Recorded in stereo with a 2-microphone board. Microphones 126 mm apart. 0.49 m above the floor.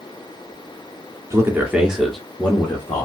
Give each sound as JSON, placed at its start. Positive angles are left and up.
{"t": 1.3, "sound": "a man speaking", "side_deg": -20, "distance_m": 0.7}